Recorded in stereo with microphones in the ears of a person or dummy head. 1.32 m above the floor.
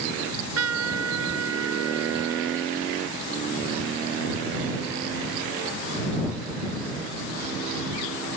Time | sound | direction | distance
0.2 | a trumpet | 85° right | ?